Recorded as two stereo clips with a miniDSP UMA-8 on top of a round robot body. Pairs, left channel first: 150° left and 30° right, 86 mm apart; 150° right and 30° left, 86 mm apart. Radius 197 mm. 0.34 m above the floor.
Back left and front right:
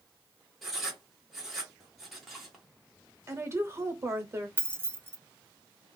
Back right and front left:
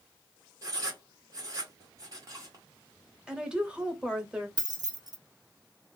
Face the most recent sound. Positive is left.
turn(degrees=30)